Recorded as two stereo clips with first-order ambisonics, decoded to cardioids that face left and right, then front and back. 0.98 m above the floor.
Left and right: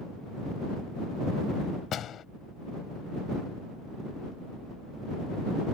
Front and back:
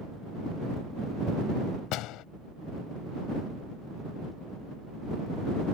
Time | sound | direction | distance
1.9 | a door slam | 35° left | ?